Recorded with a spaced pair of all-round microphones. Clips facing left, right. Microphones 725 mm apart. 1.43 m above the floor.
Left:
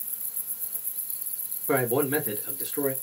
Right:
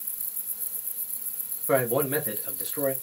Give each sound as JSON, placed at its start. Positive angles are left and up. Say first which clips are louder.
{"t": 1.7, "sound": "a man speaking", "louder": "even", "side_deg": -15, "distance_m": 1.3}